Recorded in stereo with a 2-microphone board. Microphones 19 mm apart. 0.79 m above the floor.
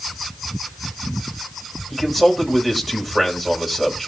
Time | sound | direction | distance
1.9 | a man speaking | 10° right (ahead or behind) | 3.5 m